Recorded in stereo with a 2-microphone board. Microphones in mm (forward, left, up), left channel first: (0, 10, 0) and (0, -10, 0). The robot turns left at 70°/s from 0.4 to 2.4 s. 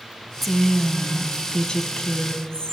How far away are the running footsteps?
I don't hear running footsteps.